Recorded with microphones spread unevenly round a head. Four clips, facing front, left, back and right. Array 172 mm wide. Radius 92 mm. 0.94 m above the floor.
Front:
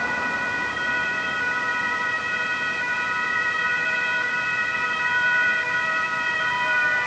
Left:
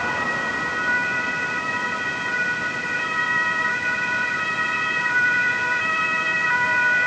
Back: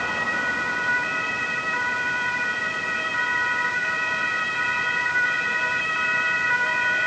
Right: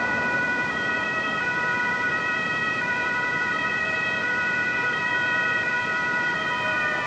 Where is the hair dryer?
I don't hear a hair dryer.